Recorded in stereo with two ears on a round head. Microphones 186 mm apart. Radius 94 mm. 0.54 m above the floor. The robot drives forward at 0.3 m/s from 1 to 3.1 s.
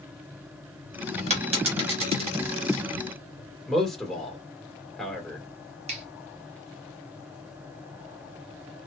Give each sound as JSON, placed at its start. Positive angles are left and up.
{"t": 1.3, "sound": "a dropped coin", "side_deg": -30, "distance_m": 2.5}
{"t": 3.7, "sound": "a man speaking", "side_deg": 0, "distance_m": 1.9}
{"t": 5.9, "sound": "a finger snap", "side_deg": -30, "distance_m": 1.1}